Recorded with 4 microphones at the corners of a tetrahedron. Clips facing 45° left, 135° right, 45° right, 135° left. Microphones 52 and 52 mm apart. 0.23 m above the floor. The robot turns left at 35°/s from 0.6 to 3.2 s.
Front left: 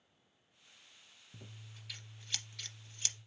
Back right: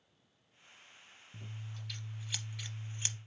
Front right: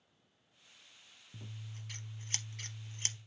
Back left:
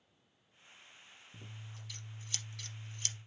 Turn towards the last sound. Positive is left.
turn(degrees=-85)